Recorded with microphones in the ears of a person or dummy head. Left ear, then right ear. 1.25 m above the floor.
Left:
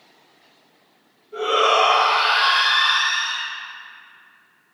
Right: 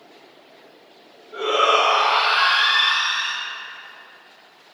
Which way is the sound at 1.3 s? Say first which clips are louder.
Even; 20° right (ahead or behind).